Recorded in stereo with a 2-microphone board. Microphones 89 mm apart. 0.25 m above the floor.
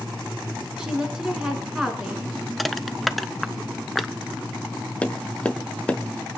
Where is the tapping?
15° left (ahead or behind), 0.9 m.